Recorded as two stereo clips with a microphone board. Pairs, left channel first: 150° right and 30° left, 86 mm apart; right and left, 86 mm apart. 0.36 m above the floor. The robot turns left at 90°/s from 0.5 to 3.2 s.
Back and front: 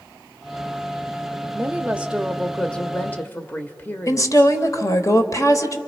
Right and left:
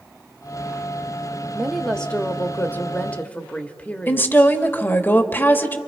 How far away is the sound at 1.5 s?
About 0.9 m.